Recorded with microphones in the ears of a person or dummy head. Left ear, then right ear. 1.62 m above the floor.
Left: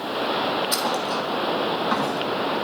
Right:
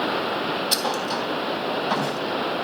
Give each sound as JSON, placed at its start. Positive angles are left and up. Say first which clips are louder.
{"t": 0.7, "sound": "a thud", "louder": "even", "side_deg": -40, "distance_m": 3.0}